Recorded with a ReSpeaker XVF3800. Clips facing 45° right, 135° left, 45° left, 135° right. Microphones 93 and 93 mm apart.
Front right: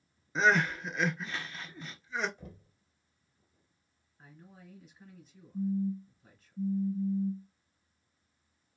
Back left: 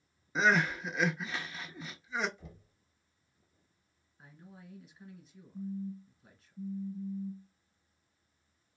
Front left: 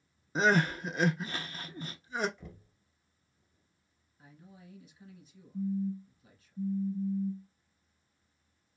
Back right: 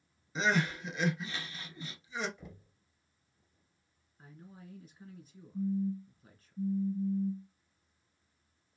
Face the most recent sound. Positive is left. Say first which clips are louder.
# front right 8 dB, even
turn(degrees=-35)